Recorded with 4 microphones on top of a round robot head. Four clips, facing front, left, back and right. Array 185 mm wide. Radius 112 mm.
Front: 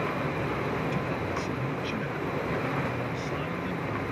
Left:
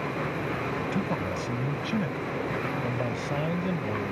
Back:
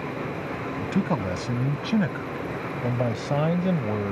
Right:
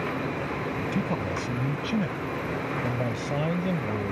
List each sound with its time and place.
0.8 s a man speaking: straight behind; by 4.1 s 175° right